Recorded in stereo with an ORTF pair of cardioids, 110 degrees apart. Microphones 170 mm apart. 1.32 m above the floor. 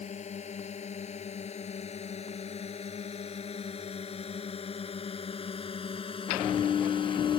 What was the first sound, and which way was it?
A drone, 40° left.